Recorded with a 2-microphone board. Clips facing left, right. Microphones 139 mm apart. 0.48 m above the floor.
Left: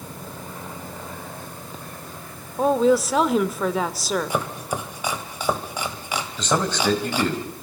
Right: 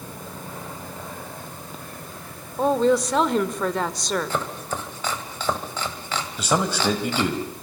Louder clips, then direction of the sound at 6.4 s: Even; 10° right (ahead or behind).